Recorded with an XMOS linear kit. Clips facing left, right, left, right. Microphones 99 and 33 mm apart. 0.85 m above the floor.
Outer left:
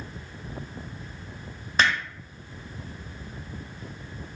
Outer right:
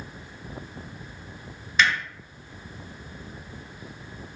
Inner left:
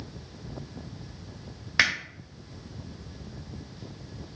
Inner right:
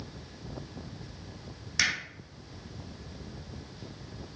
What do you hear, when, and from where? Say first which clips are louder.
1.8 s hammering: even, inner left 5 dB; 40° left (ahead or behind), 1.5 m